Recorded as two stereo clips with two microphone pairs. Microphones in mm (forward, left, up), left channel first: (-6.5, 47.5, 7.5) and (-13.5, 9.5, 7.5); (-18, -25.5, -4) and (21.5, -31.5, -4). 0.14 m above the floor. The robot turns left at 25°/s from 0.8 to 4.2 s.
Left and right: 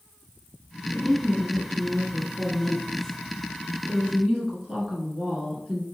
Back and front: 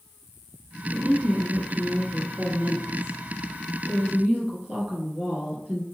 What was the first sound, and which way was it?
A woman speaking, 55° left.